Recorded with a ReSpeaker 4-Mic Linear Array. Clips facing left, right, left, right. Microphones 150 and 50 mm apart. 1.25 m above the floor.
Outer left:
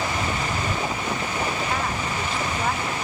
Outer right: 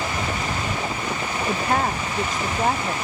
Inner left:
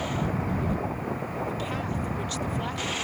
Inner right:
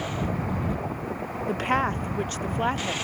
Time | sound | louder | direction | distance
1.5 | a woman speaking | outer right 4 dB, inner right 6 dB | 55° right (ahead or behind) | ?